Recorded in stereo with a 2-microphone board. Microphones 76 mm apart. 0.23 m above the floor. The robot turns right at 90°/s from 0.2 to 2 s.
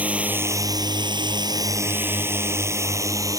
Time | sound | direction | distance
0.0 | a drone | 20° right (ahead or behind) | ?